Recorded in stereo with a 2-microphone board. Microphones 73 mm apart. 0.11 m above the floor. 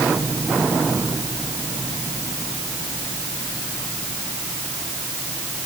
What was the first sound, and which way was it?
Only background noise.